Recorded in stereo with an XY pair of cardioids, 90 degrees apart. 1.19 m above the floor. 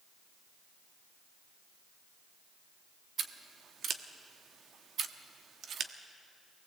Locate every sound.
3.2 s scissors: 65° right, 1.3 m